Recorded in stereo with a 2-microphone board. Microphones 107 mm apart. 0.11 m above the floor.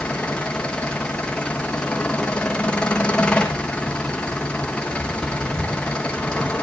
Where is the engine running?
10° left (ahead or behind), 1.7 m.